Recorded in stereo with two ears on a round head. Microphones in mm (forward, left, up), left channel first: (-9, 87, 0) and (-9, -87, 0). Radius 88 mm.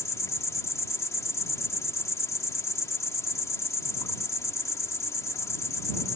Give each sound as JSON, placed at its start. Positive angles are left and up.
{"t": 0.0, "sound": "an insect", "side_deg": 15}